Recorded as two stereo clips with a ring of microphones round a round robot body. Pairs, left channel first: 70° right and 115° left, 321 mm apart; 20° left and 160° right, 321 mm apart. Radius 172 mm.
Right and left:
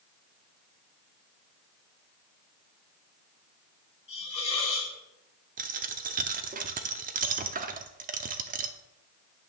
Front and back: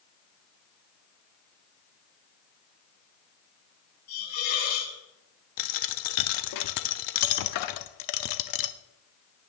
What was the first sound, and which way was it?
A hiss, 5° left.